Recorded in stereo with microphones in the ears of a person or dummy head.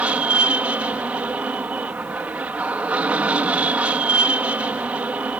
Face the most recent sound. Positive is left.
turn(degrees=-15)  # may be behind; listen again after turning